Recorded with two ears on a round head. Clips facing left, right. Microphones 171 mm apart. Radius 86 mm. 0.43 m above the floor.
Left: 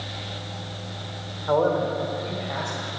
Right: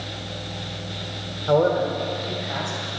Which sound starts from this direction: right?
A man speaking, at 1.5 s.